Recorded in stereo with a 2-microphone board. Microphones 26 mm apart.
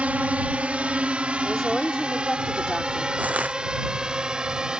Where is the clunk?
No clunk in this recording.